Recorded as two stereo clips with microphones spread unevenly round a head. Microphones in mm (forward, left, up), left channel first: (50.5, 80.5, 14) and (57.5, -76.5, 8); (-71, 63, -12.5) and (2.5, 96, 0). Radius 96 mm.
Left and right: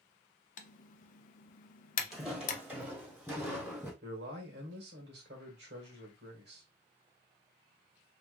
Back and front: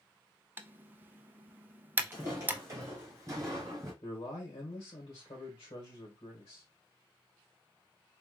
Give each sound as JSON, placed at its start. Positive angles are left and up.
{"t": 0.6, "sound": "typing on a keyboard", "azimuth_deg": 80, "distance_m": 0.5}
{"t": 2.1, "sound": "footsteps", "azimuth_deg": 5, "distance_m": 1.6}
{"t": 4.0, "sound": "a man speaking", "azimuth_deg": -115, "distance_m": 1.8}